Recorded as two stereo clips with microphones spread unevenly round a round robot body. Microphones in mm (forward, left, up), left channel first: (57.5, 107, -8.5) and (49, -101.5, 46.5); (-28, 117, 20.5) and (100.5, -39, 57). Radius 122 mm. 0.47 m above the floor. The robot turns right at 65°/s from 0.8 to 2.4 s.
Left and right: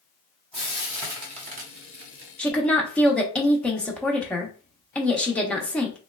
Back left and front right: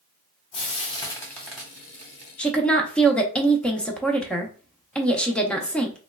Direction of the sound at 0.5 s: 165° left.